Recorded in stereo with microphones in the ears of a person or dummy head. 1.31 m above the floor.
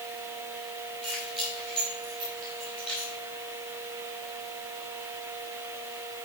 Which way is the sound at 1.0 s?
Centre (ahead or behind).